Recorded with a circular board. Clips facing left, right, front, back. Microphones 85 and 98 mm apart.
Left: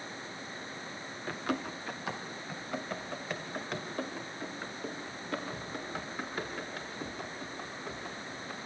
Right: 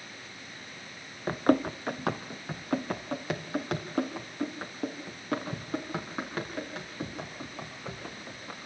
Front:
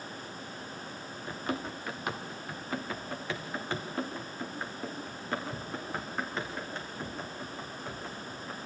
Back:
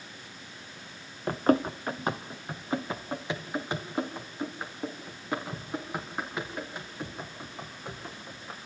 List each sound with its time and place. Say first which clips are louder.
1.3 s running footsteps: right 10 dB, back 11 dB; 145° right, 1.1 m; by 8.6 s 100° right, 9 m